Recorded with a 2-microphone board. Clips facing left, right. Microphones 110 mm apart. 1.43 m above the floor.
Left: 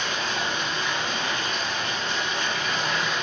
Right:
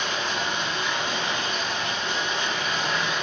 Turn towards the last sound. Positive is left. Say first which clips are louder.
# even
turn(degrees=-20)  # may be behind; listen again after turning